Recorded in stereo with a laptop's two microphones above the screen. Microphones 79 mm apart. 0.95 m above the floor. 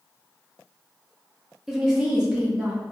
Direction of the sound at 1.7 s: 5° right (ahead or behind).